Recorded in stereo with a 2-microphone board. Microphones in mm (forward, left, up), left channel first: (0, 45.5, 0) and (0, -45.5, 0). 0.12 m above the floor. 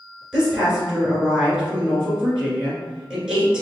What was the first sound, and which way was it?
A woman speaking, 10° right (ahead or behind).